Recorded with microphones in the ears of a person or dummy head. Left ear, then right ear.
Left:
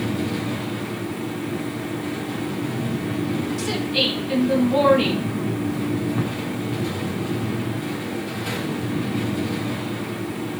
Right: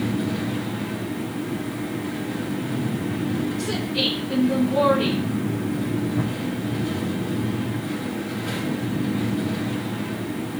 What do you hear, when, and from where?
0.0 s a fan: 45° left (ahead or behind), 4 m
3.6 s a woman speaking: 60° left (ahead or behind), 8 m